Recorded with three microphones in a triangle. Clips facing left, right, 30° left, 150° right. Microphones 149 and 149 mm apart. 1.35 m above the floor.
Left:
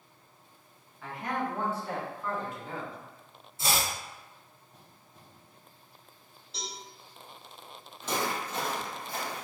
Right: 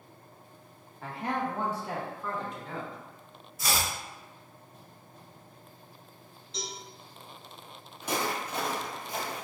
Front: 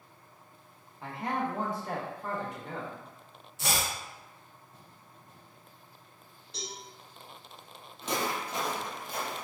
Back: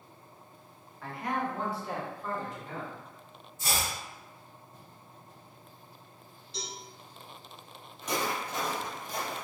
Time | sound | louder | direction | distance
1.0 | a man speaking | right 1 dB, even | 40° right | 1.0 m
3.6 | chopping | left 1 dB, front 1 dB | 30° left | 0.8 m
6.5 | a cowbell | right 2 dB, back 1 dB | 5° left | 1.9 m
8.0 | footsteps | even, even | 20° right | 1.8 m